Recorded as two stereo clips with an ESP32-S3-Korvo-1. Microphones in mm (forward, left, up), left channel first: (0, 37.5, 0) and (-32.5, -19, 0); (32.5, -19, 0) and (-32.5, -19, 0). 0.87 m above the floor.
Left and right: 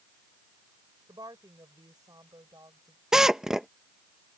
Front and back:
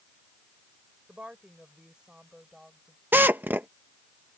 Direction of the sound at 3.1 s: 165° left.